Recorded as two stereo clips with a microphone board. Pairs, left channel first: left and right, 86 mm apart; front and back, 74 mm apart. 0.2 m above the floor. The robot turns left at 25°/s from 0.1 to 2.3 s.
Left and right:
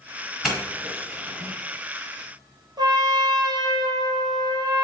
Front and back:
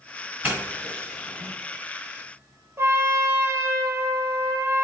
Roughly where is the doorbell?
Behind.